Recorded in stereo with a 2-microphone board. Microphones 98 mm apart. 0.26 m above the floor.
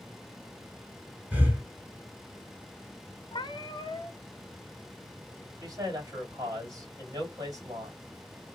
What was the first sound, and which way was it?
Breathing, 20° right (ahead or behind).